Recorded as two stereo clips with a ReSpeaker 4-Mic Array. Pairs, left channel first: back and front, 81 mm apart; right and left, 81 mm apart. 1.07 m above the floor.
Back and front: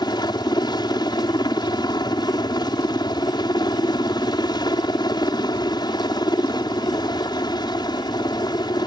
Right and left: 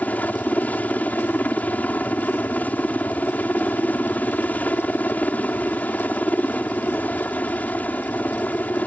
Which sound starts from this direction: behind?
A helicopter, at 0.0 s.